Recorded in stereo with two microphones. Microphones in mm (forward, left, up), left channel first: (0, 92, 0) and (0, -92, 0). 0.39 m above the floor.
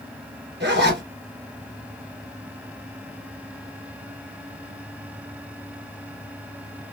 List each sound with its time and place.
0.6 s a zipper: 65° right (ahead or behind), 2.5 m